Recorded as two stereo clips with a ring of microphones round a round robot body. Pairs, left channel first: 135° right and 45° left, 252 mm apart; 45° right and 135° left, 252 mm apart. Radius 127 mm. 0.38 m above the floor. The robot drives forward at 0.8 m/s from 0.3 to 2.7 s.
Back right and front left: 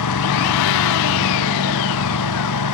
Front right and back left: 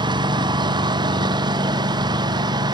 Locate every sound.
0.0 s a lawn mower: 150° right